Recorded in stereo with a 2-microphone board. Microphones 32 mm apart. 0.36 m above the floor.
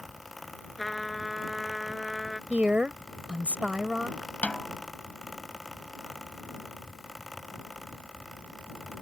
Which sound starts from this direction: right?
A woman speaking, at 2.5 s.